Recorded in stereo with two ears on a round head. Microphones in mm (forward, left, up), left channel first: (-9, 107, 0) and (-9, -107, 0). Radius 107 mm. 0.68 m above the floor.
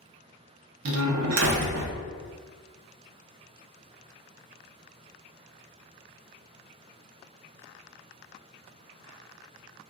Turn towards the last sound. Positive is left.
turn(degrees=-60)  # may be behind; listen again after turning